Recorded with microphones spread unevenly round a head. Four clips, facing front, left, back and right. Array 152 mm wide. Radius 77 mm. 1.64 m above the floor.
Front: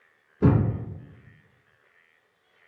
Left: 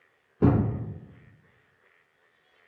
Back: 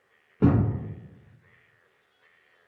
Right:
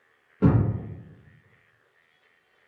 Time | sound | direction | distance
0.4 | a thud | 165° left | 1.1 m